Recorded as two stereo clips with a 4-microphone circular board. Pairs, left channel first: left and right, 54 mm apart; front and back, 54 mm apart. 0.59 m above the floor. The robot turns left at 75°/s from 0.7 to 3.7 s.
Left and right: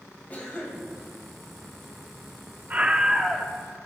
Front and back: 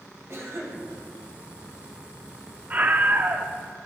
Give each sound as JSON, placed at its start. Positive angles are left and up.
{"t": 0.3, "sound": "a cough", "azimuth_deg": 145, "distance_m": 4.0}
{"t": 2.7, "sound": "a scream", "azimuth_deg": -135, "distance_m": 0.8}